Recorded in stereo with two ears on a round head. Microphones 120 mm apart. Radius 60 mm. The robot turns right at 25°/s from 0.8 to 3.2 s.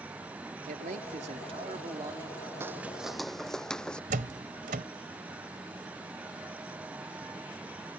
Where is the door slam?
70° right (ahead or behind).